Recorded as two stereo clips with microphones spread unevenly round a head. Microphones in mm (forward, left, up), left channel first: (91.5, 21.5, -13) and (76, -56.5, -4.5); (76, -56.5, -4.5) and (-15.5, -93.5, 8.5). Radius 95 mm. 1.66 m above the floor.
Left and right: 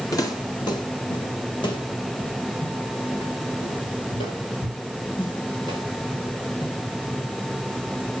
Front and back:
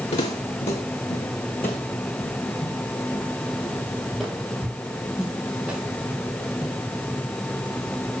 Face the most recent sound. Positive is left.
turn(degrees=120)